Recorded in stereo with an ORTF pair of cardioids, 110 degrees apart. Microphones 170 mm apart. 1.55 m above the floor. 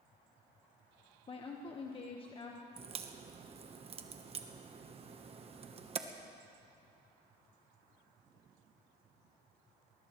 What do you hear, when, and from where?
1.3 s a woman speaking: 30° left, 1.4 m
2.8 s a crack: 35° right, 1.2 m